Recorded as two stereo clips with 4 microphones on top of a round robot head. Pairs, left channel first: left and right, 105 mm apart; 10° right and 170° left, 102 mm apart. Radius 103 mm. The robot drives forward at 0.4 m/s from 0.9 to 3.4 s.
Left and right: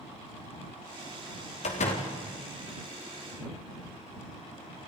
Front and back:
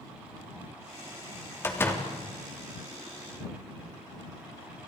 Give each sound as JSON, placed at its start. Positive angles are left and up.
{"t": 1.6, "sound": "a door slam", "azimuth_deg": 55, "distance_m": 3.0}